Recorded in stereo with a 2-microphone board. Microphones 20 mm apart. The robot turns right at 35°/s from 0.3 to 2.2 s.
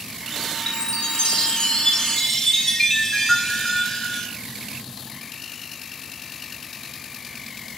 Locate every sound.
0.7 s a chime: 105° left, 2.5 m; by 4.3 s 160° left, 2.5 m